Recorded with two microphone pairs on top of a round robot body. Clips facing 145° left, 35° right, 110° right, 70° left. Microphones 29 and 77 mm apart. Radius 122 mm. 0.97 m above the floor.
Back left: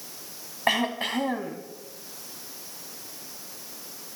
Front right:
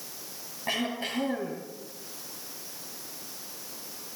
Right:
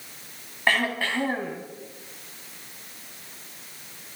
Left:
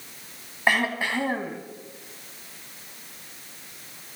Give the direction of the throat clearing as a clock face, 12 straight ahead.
7 o'clock.